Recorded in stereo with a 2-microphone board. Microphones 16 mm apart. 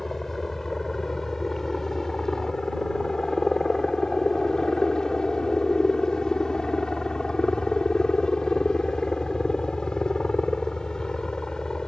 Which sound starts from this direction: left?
A helicopter, at 0.0 s.